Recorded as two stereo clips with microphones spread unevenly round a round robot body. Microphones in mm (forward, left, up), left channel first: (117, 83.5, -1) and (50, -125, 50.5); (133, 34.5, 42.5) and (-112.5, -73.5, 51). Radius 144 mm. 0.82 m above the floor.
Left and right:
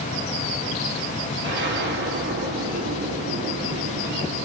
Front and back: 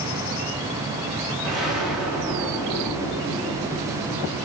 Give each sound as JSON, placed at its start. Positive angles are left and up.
{"t": 1.4, "sound": "an explosion", "azimuth_deg": -65, "distance_m": 3.0}